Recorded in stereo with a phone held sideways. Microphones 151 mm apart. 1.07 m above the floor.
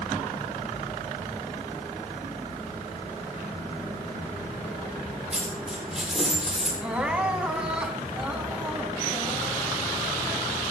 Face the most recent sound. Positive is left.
turn(degrees=-5)  # may be behind; listen again after turning